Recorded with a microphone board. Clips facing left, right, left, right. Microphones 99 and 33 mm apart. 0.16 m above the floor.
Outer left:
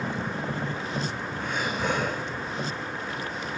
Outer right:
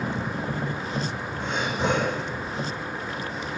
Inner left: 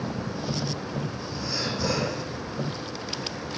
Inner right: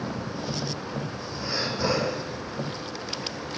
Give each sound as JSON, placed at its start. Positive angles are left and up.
{"t": 1.4, "sound": "breathing", "side_deg": -20, "distance_m": 6.0}